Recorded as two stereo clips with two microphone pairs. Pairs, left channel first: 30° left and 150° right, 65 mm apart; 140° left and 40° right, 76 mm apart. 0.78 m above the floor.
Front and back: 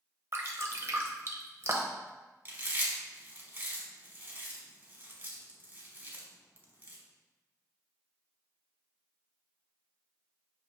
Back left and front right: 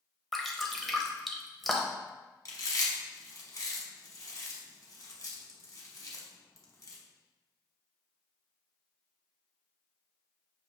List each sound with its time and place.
0.3 s dripping: 130° right, 0.7 m
2.5 s chewing: 160° left, 1.0 m